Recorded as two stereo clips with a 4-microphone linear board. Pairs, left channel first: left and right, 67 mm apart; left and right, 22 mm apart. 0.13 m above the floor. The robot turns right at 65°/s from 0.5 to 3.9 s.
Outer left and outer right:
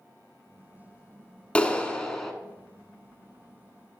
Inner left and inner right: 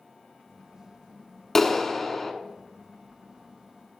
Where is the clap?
15° left (ahead or behind), 0.8 m; by 2.3 s 5° left (ahead or behind), 0.8 m.